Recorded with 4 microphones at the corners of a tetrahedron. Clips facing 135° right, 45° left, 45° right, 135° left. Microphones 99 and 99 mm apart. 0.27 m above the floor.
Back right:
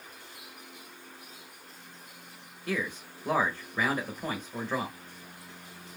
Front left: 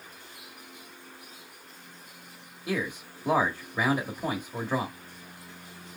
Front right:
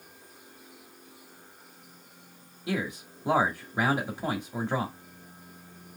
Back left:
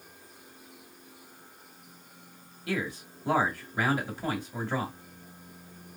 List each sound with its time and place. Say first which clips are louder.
2.7 s a man speaking: front left 2 dB, front right 1 dB; 20° right, 0.9 m